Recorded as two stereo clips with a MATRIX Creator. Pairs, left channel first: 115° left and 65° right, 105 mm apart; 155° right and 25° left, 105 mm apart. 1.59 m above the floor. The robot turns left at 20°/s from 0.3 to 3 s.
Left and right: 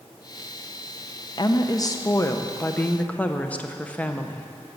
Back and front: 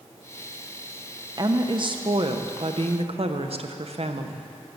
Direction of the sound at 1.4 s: 70° left.